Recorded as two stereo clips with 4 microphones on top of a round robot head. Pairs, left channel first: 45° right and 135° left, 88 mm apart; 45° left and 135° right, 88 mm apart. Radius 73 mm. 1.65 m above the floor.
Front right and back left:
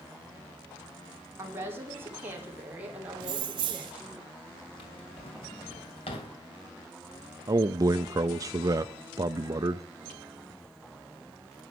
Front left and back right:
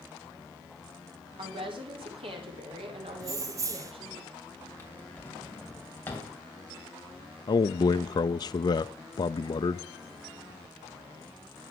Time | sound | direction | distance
1.4 | a woman speaking | 160° right | 4.5 m
3.2 | keys jangling | 170° left | 1.0 m
4.8 | a drawer | 25° right | 2.5 m
7.5 | a man speaking | 85° left | 0.6 m